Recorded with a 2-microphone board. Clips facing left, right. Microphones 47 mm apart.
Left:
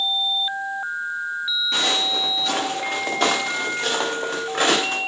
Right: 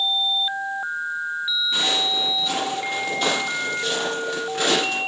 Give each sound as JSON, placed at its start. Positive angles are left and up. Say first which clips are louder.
{"t": 1.7, "sound": "footsteps", "louder": "left 2 dB", "side_deg": 75, "distance_m": 3.5}